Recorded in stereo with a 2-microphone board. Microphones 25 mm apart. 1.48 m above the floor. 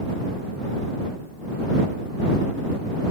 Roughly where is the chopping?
I don't hear chopping.